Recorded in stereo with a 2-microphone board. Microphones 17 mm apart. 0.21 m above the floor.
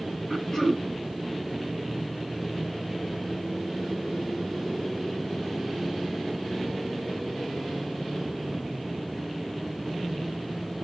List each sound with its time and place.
0.3 s throat clearing: 10° left (ahead or behind), 2.5 m